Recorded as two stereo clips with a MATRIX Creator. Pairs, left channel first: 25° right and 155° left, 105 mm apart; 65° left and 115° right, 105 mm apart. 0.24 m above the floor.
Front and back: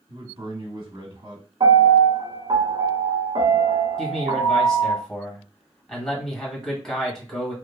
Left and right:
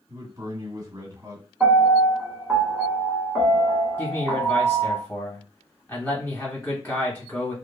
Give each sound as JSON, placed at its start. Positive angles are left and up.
{"t": 0.1, "sound": "a man speaking", "azimuth_deg": -170, "distance_m": 1.9}
{"t": 1.6, "sound": "a piano", "azimuth_deg": 170, "distance_m": 1.1}
{"t": 4.0, "sound": "a man speaking", "azimuth_deg": 55, "distance_m": 1.2}